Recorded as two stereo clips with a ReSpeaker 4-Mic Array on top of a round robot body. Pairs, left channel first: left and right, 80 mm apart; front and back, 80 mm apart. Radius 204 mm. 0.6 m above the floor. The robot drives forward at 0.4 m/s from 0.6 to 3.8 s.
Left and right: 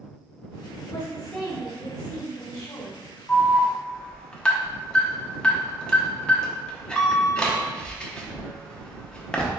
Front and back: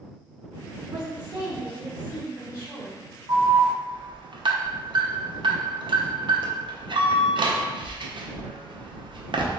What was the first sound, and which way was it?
A woman speaking, 95° left.